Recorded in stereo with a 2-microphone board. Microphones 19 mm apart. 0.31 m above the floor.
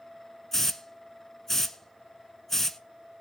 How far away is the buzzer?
No buzzer in this recording.